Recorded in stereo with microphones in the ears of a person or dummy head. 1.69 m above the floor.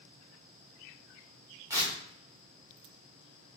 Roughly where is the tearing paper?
Centre.